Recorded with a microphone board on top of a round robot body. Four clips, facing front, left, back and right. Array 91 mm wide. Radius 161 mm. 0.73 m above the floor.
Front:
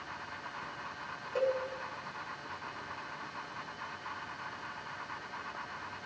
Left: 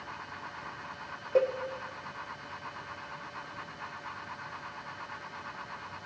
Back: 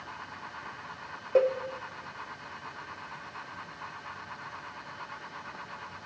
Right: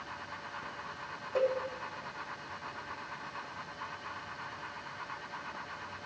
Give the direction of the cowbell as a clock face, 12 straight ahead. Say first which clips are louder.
Left 4 dB, back 7 dB; 7 o'clock.